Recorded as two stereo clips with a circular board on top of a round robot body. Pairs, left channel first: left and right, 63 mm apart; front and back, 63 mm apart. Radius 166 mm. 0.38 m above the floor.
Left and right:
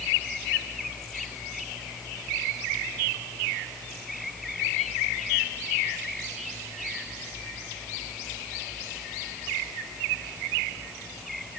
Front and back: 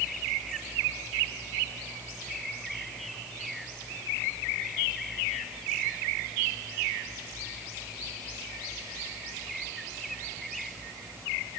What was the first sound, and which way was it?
Only background noise.